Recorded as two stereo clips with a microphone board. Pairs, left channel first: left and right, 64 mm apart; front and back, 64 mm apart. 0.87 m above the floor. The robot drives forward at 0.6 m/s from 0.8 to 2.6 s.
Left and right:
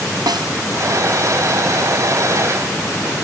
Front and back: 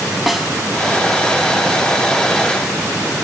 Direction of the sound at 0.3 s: 90° right.